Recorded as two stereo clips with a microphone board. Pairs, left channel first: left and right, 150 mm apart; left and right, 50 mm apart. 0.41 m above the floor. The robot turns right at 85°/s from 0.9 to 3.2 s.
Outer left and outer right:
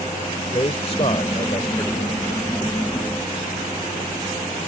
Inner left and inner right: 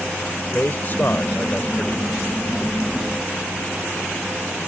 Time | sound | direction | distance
0.5 | a man speaking | 65° left | ?